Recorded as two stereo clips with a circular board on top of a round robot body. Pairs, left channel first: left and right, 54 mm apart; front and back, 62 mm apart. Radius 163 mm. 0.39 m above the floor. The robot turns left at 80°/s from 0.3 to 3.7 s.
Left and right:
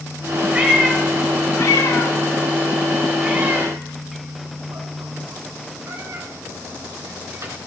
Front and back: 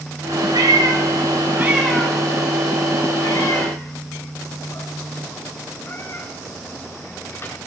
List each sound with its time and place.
0.5 s a cat meowing: 160° right, 1.8 m; by 7.6 s 55° right, 1.8 m